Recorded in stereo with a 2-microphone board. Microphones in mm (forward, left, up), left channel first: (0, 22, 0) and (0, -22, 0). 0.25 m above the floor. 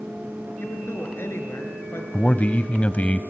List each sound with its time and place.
0.6 s a woman speaking: 60° left (ahead or behind), 4.5 m
2.1 s a man speaking: 30° left (ahead or behind), 1.0 m